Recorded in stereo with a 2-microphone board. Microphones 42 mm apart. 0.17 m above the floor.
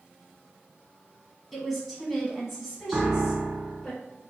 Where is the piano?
35° right (ahead or behind), 0.7 m.